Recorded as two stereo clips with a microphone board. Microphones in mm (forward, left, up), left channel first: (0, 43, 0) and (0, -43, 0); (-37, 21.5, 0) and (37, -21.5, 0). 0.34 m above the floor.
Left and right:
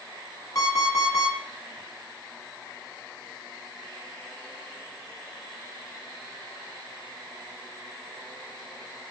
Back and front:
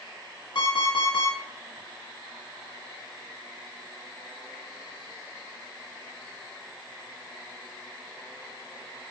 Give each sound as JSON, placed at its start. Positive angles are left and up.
{"t": 0.6, "sound": "an alarm clock", "azimuth_deg": 135, "distance_m": 1.7}